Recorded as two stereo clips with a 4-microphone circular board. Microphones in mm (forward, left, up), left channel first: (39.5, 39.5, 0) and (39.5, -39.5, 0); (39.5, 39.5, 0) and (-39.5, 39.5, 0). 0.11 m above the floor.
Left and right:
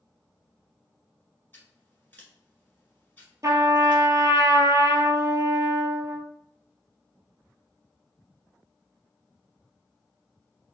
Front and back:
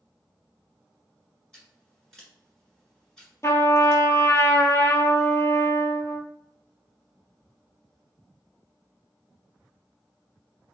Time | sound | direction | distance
1.5 | scissors | 70° left | 1.6 m
3.4 | a trumpet | 45° right | 0.6 m